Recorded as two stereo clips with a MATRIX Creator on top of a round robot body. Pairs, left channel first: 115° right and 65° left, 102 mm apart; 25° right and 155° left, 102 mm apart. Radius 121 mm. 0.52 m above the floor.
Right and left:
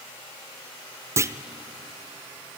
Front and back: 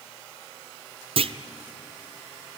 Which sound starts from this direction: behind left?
A clunk, at 1.2 s.